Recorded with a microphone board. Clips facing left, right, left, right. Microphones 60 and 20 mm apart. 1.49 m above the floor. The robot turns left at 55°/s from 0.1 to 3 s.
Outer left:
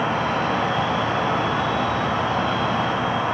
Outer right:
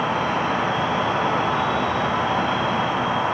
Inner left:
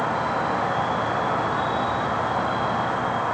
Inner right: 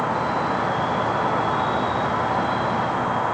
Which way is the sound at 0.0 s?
Straight ahead.